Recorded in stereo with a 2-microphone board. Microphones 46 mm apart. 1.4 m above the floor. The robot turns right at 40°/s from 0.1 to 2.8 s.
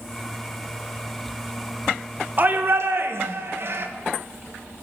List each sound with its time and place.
2.4 s a shout: 45° right (ahead or behind), 1.5 m; by 3.9 s 60° right (ahead or behind), 1.5 m